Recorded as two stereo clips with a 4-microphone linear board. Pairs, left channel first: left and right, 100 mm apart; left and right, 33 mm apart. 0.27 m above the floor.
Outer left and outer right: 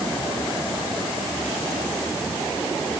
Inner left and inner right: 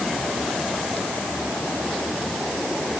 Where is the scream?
I don't hear a scream.